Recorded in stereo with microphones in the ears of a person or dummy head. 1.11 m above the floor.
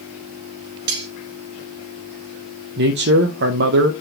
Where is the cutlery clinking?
55° right (ahead or behind), 1.5 m.